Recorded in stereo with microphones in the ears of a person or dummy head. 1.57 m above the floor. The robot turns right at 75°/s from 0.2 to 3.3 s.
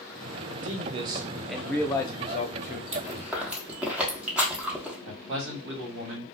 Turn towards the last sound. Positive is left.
turn(degrees=-65)  # may be behind; listen again after turning